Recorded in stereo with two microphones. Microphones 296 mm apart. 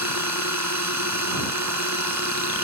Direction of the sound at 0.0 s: 65° right (ahead or behind).